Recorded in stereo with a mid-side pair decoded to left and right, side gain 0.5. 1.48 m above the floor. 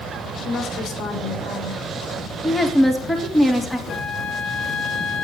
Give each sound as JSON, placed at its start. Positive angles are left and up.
{"t": 0.5, "sound": "a woman speaking", "azimuth_deg": 65, "distance_m": 4.5}
{"t": 2.4, "sound": "a woman speaking", "azimuth_deg": 10, "distance_m": 3.5}
{"t": 3.9, "sound": "a flute", "azimuth_deg": 55, "distance_m": 2.0}